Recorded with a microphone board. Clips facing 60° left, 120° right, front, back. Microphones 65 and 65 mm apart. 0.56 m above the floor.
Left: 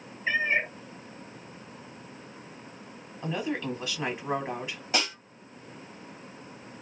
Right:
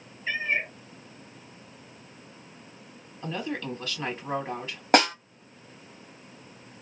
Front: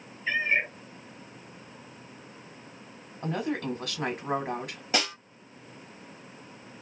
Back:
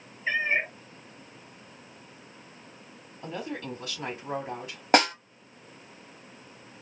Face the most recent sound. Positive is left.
turn(degrees=-145)